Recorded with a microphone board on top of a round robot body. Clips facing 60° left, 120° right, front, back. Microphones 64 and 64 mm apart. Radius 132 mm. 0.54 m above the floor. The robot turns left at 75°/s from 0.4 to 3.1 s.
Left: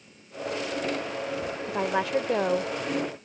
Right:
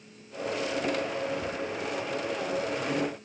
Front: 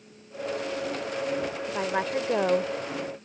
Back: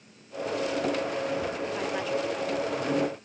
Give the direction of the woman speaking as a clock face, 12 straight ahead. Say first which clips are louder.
Left 6 dB, front 2 dB; 9 o'clock.